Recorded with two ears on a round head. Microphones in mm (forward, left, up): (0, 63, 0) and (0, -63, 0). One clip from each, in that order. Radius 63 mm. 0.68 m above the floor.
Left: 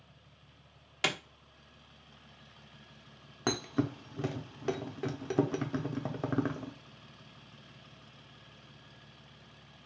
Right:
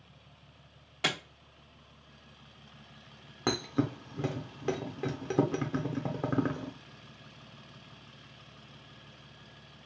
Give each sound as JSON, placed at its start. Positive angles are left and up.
{"t": 1.0, "sound": "a clap", "side_deg": 45, "distance_m": 1.0}
{"t": 3.5, "sound": "a thud", "side_deg": 10, "distance_m": 0.6}